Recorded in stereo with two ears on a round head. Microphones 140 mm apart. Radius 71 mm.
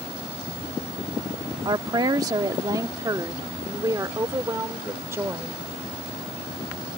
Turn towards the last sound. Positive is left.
turn(degrees=-15)  # may be behind; listen again after turning